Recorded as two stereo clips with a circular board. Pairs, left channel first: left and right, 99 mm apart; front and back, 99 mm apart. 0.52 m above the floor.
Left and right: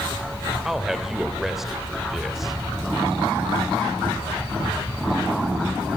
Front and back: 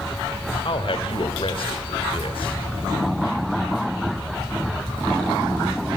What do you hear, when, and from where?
0.7 s a man speaking: 5° right, 2 m